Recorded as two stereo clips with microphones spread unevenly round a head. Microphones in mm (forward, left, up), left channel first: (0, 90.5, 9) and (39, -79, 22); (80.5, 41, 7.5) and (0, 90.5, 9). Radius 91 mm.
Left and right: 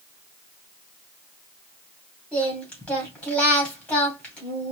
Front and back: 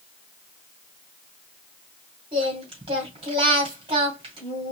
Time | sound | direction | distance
2.3 | singing | 175° right | 2 m